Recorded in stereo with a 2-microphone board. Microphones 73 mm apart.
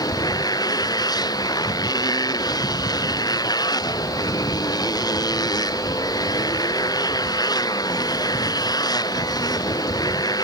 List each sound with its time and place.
0.0 s a motorcycle: 65° left (ahead or behind)